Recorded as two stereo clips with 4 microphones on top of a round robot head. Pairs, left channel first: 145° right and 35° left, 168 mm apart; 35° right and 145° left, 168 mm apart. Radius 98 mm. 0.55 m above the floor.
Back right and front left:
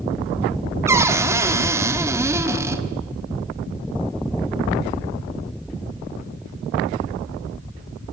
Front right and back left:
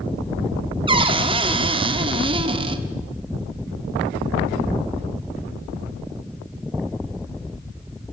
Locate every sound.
0.9 s a cupboard door: 100° left, 1.4 m